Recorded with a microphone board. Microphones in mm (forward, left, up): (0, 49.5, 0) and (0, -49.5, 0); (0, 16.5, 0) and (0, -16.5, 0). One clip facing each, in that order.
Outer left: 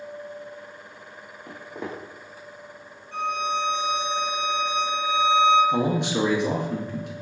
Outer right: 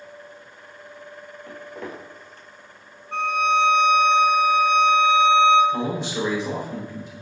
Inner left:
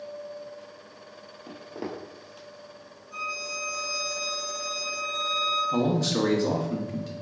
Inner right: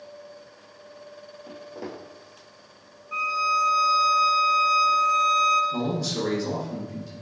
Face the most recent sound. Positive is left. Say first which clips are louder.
# outer left 2 dB, inner left 3 dB
turn(degrees=65)  # may be behind; listen again after turning